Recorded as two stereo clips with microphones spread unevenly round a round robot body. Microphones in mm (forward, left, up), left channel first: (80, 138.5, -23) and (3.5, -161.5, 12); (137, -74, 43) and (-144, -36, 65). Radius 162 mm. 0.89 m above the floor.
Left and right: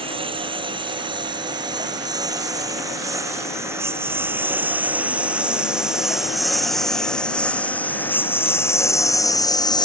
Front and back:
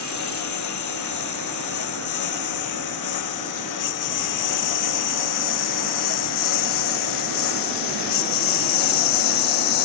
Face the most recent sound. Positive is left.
turn(degrees=0)